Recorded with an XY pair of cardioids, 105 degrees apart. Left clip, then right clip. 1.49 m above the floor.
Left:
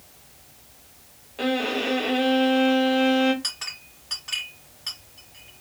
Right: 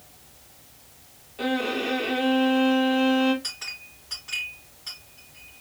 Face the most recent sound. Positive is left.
turn(degrees=50)